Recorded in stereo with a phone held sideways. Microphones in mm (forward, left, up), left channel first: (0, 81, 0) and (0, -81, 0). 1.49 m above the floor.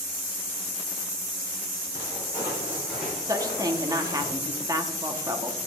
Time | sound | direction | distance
1.9 | footsteps | 20° right (ahead or behind) | 4.5 m
3.3 | a woman speaking | 20° right (ahead or behind) | 1.0 m